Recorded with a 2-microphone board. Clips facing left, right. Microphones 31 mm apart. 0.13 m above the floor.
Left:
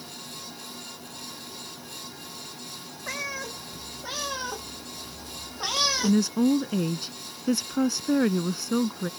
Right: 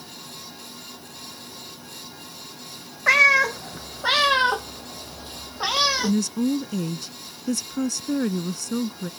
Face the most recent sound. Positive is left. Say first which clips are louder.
# left 1 dB
turn(degrees=20)  # may be behind; listen again after turning